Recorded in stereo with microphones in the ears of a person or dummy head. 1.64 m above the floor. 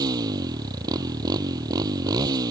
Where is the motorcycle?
25° right (ahead or behind).